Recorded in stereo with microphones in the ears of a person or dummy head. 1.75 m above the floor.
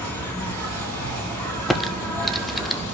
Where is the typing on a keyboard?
5° left (ahead or behind), 0.5 m.